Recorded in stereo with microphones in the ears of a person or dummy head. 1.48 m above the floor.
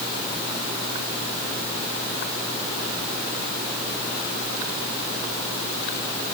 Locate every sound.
Only background noise.